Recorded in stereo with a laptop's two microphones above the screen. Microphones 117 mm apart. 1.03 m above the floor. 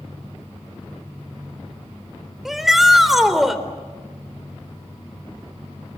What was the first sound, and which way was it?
A shout, centre (ahead or behind).